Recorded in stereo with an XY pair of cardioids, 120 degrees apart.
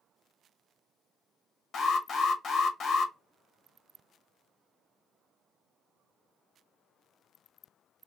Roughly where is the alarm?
Ahead left.